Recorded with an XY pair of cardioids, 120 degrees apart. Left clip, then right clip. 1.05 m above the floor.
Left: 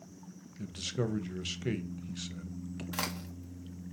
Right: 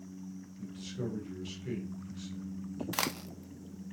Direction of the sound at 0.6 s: 65° left.